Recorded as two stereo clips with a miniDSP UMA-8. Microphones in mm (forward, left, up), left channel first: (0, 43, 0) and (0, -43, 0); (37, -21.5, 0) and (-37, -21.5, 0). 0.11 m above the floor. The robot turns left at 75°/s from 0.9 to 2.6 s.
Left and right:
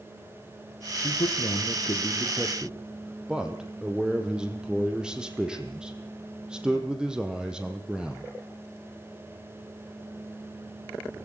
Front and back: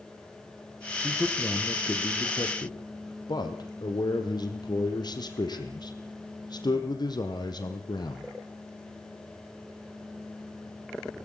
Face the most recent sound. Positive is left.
turn(degrees=-10)